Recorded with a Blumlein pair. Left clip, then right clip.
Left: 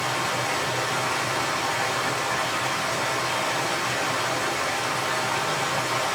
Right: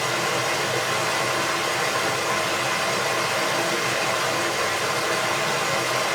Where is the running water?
20° right, 1.5 m.